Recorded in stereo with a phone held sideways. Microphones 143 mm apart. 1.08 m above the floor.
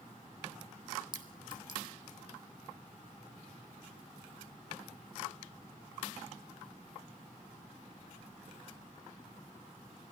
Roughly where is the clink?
Right.